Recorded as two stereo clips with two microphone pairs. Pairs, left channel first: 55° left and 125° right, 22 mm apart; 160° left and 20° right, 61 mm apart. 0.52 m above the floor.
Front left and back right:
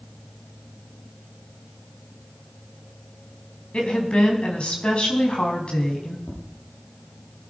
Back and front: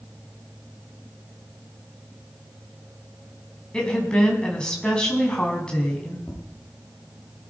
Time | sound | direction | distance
3.7 | a woman speaking | 85° left | 4.5 m
6.3 | tapping | 80° left | 9 m